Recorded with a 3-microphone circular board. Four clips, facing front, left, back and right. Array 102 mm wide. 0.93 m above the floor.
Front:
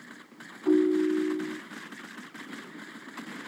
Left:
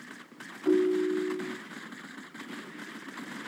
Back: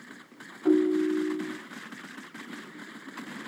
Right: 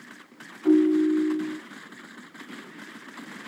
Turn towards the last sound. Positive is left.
turn(degrees=-140)